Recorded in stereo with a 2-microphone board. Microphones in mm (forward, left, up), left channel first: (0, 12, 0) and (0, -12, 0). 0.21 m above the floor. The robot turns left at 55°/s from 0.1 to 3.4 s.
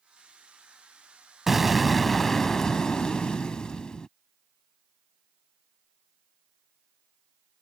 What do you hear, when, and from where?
1.5 s an explosion: 160° right; by 4.1 s 95° left